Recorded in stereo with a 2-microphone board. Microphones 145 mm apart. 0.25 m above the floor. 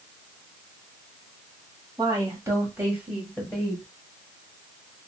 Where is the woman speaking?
30° right (ahead or behind), 1.4 m; by 3.9 s 10° left (ahead or behind), 1.4 m.